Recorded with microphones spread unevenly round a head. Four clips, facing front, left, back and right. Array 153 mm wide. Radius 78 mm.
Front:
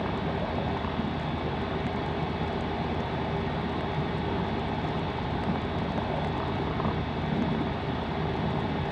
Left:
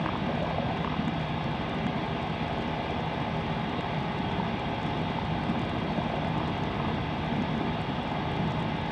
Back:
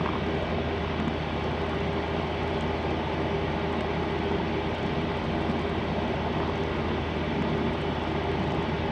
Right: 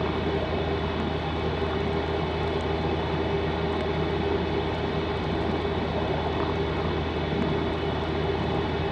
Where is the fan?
145° right, 5 m.